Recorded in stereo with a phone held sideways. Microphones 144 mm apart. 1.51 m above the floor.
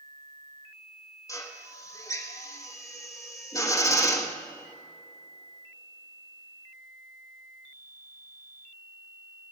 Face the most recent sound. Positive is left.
turn(degrees=25)  # may be behind; listen again after turning